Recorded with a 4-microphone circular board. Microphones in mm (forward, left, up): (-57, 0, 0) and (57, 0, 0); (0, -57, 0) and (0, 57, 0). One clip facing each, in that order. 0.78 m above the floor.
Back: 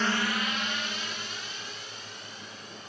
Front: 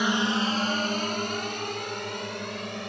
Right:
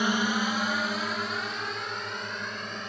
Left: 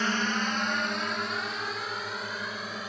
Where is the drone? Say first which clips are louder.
Front 4 dB, right 2 dB; 45° right; by 2.9 s 5° left.